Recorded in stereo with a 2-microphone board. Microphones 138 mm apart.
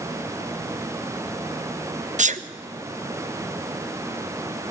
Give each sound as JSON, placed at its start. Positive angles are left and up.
{"t": 2.2, "sound": "a sneeze", "side_deg": -60, "distance_m": 0.7}